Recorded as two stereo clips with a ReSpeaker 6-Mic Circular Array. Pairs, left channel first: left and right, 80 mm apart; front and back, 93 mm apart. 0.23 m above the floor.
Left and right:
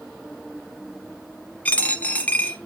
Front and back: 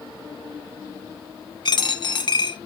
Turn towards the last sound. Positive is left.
turn(degrees=20)